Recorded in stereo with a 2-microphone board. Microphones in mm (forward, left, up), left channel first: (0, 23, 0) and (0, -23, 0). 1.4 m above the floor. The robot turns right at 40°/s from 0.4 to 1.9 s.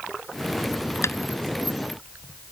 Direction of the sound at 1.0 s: 80° left.